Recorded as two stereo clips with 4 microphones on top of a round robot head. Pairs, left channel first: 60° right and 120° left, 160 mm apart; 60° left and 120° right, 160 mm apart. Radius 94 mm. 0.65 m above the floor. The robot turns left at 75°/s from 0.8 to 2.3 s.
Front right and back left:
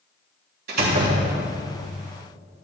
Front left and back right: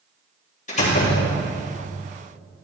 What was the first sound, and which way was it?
A door slam, 100° left.